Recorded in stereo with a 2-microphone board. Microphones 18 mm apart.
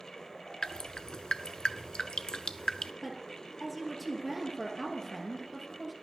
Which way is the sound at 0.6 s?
50° left (ahead or behind).